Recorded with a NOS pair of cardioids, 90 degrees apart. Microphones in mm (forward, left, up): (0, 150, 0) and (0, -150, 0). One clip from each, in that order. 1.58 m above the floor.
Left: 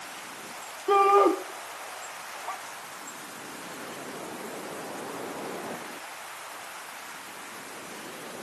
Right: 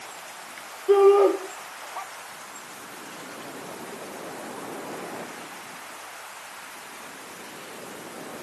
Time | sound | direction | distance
0.9 | a shout | 35° left | 3 m